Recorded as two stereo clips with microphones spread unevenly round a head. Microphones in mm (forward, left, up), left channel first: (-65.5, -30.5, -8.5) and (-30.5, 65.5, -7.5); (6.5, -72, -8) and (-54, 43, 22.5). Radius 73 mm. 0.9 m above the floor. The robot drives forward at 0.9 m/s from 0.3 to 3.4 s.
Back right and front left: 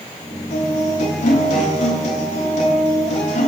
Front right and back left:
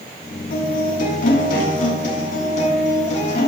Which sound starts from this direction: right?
A guitar, at 0.5 s.